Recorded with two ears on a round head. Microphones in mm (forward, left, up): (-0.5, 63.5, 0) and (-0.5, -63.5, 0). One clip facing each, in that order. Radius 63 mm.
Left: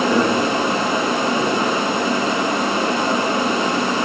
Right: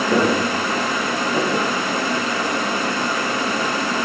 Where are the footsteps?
5° right (ahead or behind), 6.5 m; by 1.7 s 10° right (ahead or behind), 4.5 m.